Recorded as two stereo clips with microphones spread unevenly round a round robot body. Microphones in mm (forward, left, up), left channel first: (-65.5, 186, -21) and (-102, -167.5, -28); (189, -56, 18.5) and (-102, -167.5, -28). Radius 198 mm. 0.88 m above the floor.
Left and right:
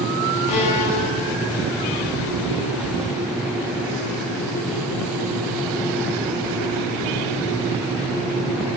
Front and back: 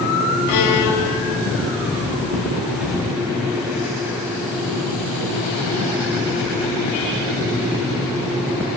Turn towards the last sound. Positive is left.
turn(degrees=45)